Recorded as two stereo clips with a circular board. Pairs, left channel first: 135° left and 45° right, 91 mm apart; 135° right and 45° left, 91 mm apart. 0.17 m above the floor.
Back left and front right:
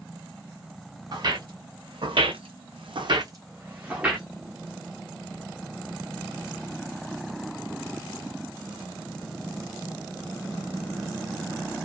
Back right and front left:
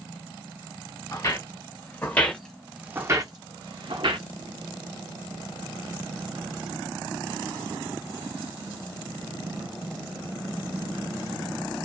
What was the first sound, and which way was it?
Footsteps, 90° right.